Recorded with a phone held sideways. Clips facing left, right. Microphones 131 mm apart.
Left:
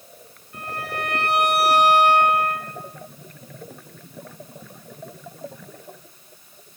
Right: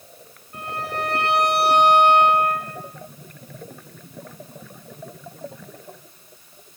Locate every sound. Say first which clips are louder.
0.5 s a violin: right 2 dB; 35° right (ahead or behind), 6 m